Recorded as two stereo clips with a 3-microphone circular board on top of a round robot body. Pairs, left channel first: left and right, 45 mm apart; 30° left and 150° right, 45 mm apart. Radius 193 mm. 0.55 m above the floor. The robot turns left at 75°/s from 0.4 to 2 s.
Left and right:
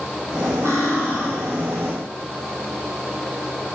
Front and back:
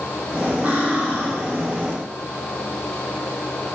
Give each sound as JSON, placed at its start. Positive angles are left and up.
{"t": 0.6, "sound": "cutlery clinking", "azimuth_deg": -85, "distance_m": 2.5}